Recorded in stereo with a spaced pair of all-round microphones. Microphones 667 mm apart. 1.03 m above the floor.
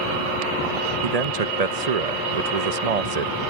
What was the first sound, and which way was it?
A man speaking, 65° right (ahead or behind).